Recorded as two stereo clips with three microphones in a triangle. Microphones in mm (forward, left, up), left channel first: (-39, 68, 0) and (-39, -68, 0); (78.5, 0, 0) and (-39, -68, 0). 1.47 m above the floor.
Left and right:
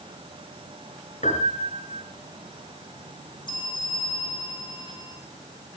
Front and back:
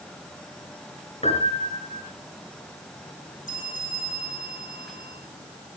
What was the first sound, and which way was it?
A piano, 70° left.